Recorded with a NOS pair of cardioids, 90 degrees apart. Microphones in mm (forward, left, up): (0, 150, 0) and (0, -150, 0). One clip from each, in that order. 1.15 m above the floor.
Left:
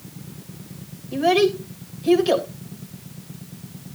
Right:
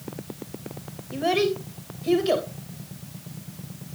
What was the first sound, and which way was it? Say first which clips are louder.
A child speaking: left 5 dB; 20° left.